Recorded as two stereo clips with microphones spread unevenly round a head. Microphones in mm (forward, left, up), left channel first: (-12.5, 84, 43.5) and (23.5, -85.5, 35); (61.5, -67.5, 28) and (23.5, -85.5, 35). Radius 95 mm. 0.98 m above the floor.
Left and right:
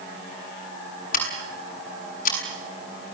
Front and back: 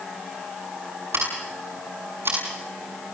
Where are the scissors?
150° left, 7 m.